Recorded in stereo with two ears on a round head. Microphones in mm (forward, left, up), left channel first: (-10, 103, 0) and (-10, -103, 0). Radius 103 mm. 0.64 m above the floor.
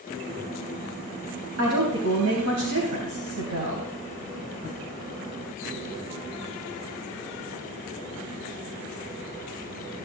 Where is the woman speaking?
70° right (ahead or behind), 3.5 m.